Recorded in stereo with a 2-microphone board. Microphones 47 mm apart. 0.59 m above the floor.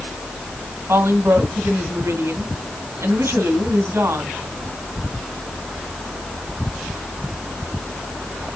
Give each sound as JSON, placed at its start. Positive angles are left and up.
{"t": 0.9, "sound": "a woman speaking", "side_deg": -75, "distance_m": 3.5}